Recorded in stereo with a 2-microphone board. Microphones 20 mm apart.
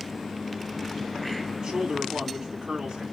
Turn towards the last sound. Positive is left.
turn(degrees=-45)  # may be behind; listen again after turning